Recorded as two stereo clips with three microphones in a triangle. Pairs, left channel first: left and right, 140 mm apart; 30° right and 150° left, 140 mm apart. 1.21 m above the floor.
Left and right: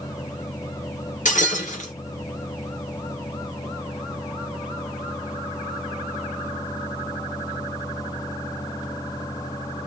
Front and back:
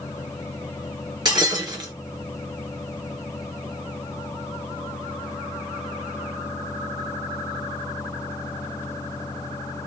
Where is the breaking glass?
95° left, 2 m.